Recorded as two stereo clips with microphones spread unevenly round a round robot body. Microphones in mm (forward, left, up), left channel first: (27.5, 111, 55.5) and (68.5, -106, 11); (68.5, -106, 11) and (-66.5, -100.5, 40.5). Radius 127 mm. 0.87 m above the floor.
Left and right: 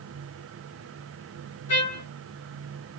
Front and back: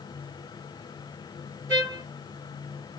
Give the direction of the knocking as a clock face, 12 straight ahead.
I don't hear knocking.